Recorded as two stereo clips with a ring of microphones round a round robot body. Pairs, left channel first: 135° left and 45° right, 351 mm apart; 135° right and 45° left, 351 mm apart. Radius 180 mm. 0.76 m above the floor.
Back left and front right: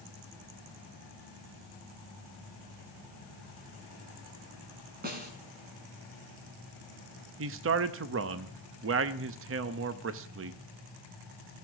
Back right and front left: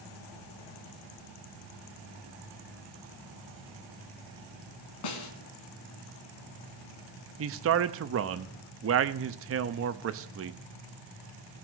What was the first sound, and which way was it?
A snare drum, 110° right.